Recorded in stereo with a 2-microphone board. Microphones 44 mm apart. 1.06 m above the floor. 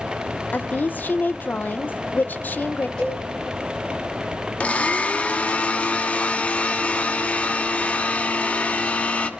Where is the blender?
35° left (ahead or behind), 0.8 m.